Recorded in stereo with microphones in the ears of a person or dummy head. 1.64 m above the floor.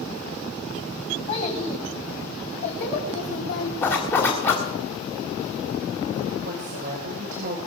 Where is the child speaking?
45° left (ahead or behind), 4 m; by 3.7 s 75° left (ahead or behind), 3 m.